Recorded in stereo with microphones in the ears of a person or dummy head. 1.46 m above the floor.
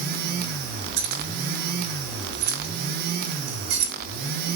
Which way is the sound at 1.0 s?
50° right (ahead or behind).